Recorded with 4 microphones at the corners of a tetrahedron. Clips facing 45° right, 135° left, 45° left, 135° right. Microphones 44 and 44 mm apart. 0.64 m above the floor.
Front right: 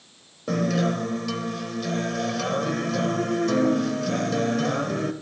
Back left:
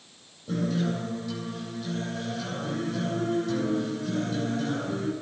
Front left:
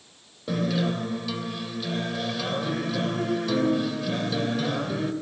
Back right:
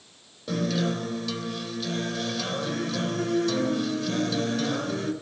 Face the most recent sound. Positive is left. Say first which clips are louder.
# front right 5 dB, front left 1 dB
turn(degrees=-35)